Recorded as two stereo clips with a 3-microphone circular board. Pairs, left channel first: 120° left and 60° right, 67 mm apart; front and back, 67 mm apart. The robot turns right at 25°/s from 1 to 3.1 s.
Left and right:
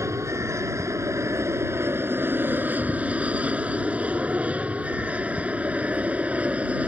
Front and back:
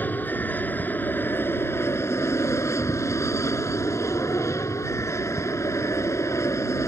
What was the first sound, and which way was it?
An aircraft, 50° right.